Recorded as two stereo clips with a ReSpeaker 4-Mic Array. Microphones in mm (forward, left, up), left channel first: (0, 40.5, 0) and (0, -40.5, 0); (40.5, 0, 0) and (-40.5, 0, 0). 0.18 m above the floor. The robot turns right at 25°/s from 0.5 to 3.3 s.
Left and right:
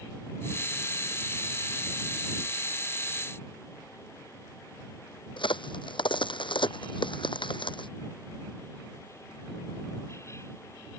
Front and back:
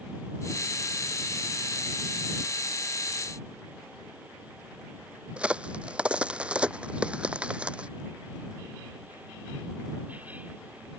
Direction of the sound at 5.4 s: 105° left.